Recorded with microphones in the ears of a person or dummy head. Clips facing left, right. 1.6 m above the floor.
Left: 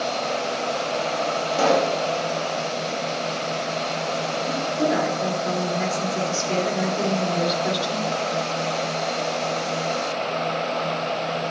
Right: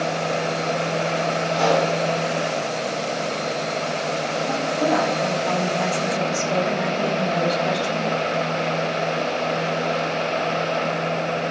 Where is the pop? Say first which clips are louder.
Even; 45° left (ahead or behind), 3 m.